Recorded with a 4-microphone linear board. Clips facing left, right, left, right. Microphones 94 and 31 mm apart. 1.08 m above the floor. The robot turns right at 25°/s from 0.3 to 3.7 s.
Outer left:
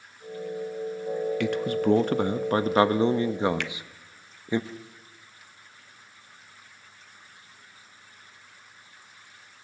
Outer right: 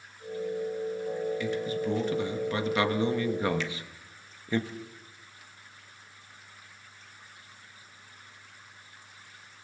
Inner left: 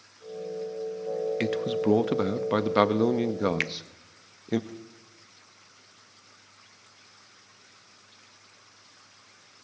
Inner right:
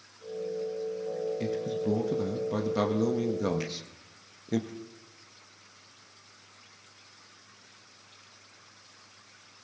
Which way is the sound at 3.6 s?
65° left (ahead or behind).